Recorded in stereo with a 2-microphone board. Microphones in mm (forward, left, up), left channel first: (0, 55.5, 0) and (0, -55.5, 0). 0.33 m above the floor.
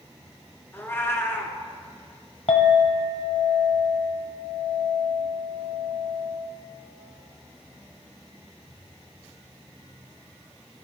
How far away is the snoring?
No snoring in this recording.